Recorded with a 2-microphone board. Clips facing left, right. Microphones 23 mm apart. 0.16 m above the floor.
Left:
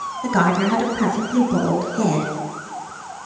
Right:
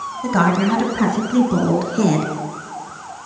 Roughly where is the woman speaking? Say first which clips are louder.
Right 1 dB; centre.